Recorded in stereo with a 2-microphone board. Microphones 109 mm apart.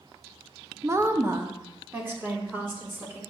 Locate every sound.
0.8 s a woman speaking: 25° right (ahead or behind), 0.7 m; by 3.2 s 20° right (ahead or behind), 3 m